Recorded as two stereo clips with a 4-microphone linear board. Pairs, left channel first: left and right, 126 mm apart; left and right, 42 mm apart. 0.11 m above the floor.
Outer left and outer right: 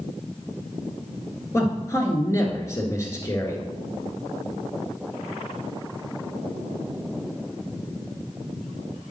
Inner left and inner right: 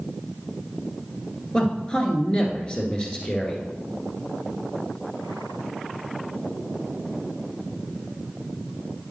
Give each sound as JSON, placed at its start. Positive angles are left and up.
{"t": 1.5, "sound": "a man speaking", "side_deg": 25, "distance_m": 1.6}